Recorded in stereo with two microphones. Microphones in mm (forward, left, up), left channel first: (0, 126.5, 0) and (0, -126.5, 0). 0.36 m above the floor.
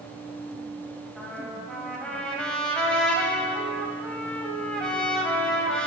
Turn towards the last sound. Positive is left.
turn(degrees=5)  # may be behind; listen again after turning